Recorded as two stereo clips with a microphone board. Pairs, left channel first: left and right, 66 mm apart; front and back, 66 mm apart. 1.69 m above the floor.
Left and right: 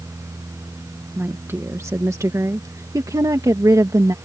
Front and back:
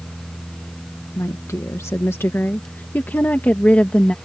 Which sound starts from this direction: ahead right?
A woman speaking, at 1.2 s.